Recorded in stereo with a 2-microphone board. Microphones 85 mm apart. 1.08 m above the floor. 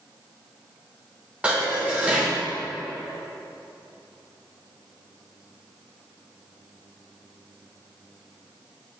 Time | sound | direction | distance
1.4 | dishes clattering | 15° right (ahead or behind) | 2 m